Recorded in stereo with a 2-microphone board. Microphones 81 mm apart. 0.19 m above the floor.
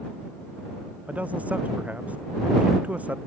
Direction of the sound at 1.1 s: 15° right (ahead or behind).